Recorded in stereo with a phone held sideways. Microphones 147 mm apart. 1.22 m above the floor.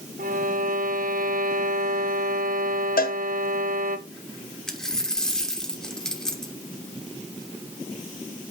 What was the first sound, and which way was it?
A violin, 65° right (ahead or behind).